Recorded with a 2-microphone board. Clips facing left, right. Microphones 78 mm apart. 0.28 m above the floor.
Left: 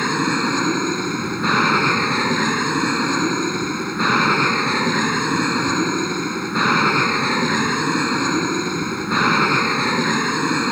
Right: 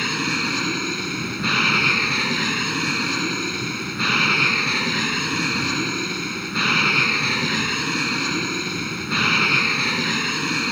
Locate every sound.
0.0 s an aircraft: 30° left (ahead or behind)